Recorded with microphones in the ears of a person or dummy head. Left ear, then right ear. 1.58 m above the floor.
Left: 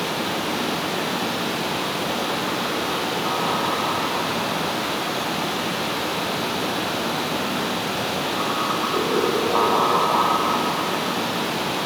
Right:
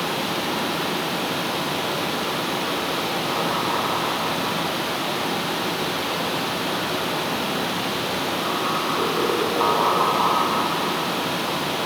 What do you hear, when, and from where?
0.0 s running water: 20° right (ahead or behind), 0.8 m